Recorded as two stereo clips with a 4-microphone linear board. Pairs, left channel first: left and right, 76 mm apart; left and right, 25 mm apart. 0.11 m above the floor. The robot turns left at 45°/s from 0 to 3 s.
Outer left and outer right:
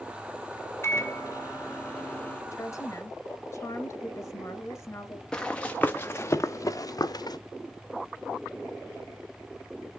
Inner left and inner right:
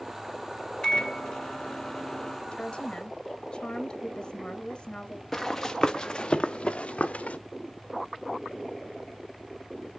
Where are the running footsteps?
10° left (ahead or behind), 1.1 m; by 7.4 s 65° left (ahead or behind), 1.2 m.